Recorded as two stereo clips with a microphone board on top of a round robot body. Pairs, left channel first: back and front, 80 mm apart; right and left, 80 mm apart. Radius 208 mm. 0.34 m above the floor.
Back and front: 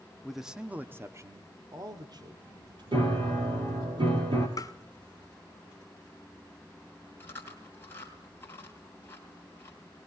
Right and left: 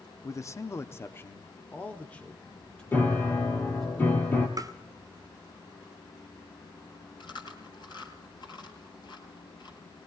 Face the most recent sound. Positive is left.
turn(degrees=-115)